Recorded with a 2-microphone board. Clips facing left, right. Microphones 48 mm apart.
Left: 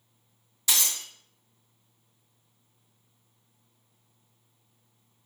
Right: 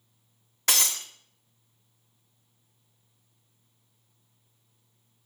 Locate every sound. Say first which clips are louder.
0.7 s breaking glass: right 2 dB; 50° right (ahead or behind), 0.6 m